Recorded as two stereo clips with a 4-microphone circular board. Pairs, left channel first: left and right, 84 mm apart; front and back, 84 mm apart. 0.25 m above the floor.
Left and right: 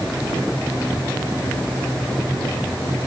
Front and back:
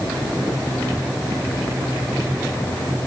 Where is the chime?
I don't hear a chime.